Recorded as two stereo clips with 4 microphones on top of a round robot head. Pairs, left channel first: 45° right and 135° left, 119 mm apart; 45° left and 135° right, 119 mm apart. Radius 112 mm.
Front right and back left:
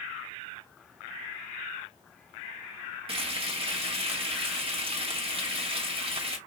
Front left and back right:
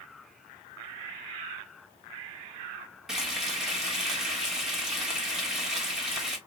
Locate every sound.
3.1 s frying: 140° left, 1.5 m